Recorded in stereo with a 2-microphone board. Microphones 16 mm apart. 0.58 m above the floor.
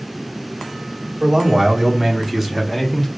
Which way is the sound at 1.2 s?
40° right (ahead or behind).